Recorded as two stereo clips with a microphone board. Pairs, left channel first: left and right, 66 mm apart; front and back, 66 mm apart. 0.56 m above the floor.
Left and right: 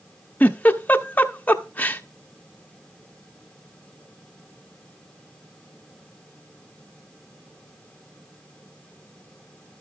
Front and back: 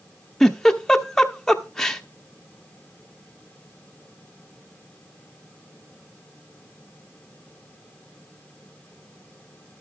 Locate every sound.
0.4 s a giggle: 75° left, 0.9 m